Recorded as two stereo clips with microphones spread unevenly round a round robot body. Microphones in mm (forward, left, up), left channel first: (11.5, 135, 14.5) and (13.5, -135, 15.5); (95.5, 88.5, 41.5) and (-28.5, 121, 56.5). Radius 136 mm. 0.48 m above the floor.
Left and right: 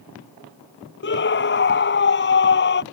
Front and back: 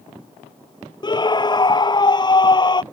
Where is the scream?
40° left.